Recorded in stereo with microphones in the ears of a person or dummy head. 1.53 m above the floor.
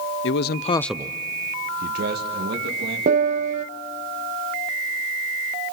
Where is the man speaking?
70° left (ahead or behind), 0.9 m; by 3.0 s 70° right (ahead or behind), 3 m.